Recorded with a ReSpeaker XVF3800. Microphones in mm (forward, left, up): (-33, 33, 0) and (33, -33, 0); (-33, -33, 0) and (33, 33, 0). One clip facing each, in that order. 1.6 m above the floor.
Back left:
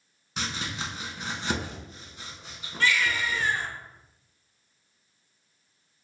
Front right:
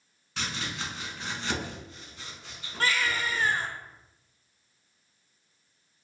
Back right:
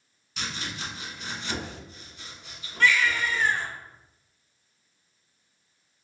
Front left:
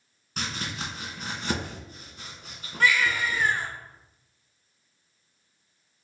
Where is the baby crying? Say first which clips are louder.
Back left 2 dB, even; 35° right, 0.6 m.